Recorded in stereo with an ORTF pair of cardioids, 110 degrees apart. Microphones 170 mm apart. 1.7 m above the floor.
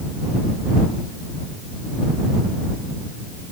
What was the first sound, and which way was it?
Only background noise.